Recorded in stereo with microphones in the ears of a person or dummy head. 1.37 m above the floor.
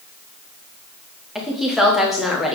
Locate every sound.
1.4 s a woman speaking: centre (ahead or behind), 1.7 m